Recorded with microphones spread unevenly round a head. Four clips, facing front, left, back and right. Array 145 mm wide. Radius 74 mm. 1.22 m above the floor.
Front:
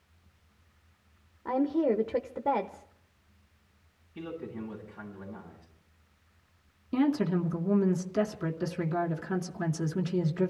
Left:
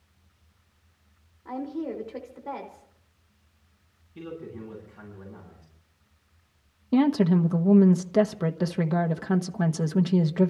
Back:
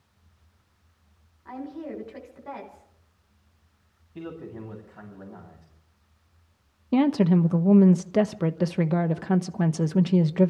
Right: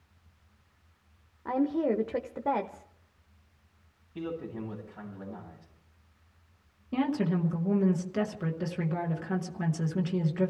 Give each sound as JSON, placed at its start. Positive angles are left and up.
{"t": 1.4, "sound": "a woman speaking", "azimuth_deg": -35, "distance_m": 1.0}
{"t": 4.2, "sound": "a man speaking", "azimuth_deg": -145, "distance_m": 9.0}
{"t": 6.9, "sound": "a woman speaking", "azimuth_deg": 155, "distance_m": 0.9}